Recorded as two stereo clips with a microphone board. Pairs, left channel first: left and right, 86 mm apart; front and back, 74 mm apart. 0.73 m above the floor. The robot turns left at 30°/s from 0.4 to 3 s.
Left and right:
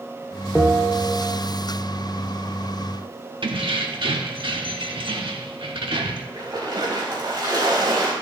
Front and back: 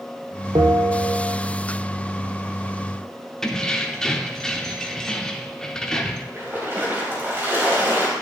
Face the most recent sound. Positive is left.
turn(degrees=-120)